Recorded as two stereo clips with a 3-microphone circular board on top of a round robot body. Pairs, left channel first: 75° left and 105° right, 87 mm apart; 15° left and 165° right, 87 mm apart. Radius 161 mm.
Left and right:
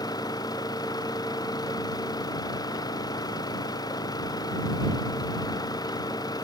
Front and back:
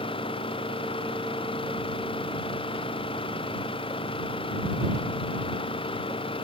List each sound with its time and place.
0.0 s an engine running: 30° left